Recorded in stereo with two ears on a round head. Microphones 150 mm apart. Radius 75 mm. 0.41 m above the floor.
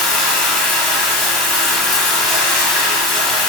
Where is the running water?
Centre (ahead or behind), 1.9 m.